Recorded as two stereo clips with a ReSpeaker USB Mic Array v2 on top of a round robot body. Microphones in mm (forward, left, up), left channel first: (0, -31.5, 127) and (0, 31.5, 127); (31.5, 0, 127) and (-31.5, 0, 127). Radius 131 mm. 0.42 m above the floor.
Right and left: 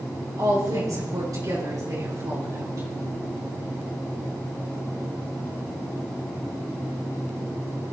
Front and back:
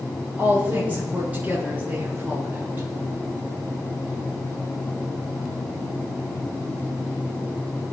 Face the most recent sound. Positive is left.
turn(degrees=125)